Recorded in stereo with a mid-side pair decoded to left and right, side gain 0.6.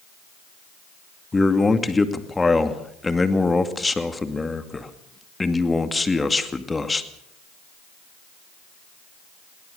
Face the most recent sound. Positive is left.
turn(degrees=15)